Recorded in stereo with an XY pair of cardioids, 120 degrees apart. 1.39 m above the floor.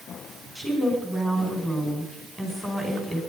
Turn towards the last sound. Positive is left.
turn(degrees=10)